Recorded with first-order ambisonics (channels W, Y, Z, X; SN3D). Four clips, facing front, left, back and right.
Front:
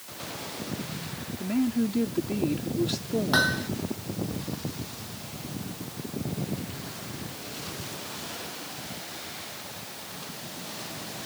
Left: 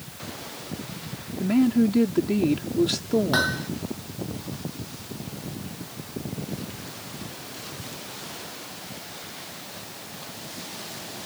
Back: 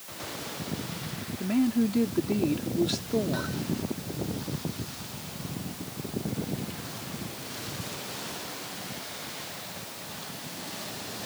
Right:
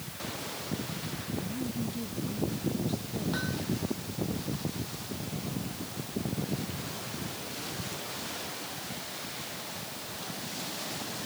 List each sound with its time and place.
1.4 s a woman speaking: 95° left
3.3 s hammering: 45° left